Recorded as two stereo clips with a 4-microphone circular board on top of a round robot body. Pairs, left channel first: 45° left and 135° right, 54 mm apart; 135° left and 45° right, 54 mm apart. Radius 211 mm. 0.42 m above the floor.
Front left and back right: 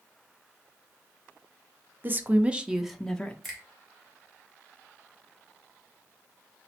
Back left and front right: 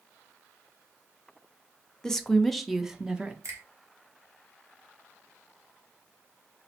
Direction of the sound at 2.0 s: 155° right.